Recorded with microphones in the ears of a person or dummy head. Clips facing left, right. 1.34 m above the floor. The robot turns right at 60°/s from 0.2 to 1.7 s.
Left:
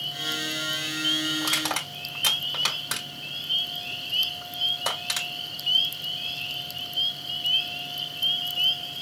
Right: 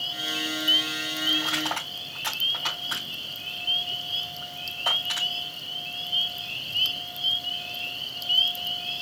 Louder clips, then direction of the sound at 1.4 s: Even; 60° left (ahead or behind).